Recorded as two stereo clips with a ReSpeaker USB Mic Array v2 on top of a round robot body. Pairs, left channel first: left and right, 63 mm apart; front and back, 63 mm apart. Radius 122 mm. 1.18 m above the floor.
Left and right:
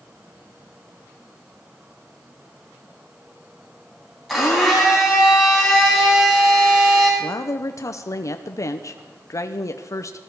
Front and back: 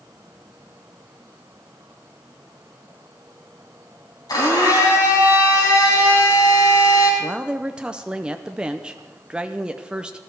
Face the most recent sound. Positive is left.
turn(degrees=105)